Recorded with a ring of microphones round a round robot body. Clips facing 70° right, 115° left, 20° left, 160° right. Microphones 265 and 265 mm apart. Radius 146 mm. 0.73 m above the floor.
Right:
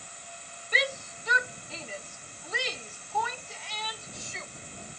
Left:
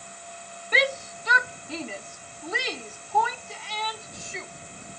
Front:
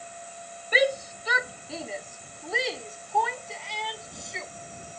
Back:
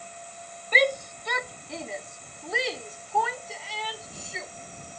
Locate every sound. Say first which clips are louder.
0.7 s a shout: left 6 dB, front 1 dB; 105° left; by 4.5 s 115° left